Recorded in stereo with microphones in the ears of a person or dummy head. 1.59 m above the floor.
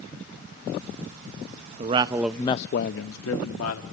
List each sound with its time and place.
1.8 s a man speaking: 35° right (ahead or behind), 0.9 m; by 3.8 s 75° left (ahead or behind), 1.6 m